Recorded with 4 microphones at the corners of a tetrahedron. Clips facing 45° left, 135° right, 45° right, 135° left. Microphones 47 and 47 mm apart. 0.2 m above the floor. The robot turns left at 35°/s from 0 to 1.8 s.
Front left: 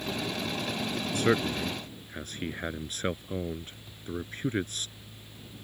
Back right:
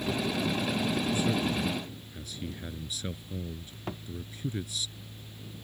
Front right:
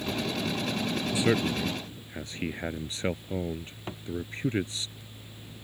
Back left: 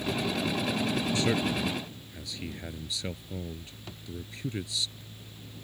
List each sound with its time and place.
1.1 s a man speaking: 30° left; by 4.9 s 5° left
3.9 s a thud: 100° right